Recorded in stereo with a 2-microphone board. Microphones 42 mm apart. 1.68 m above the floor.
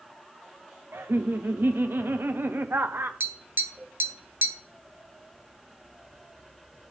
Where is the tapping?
45° right (ahead or behind), 0.9 m.